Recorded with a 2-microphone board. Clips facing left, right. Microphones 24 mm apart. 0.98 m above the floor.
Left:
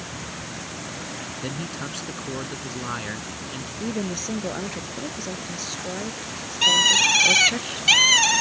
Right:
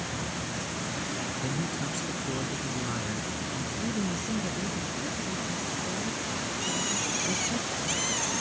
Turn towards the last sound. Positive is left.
turn(degrees=60)  # may be behind; listen again after turning